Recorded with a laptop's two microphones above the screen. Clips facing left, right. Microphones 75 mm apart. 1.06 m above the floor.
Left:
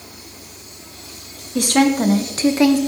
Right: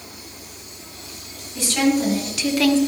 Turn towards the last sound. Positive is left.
turn(degrees=10)  # may be behind; listen again after turning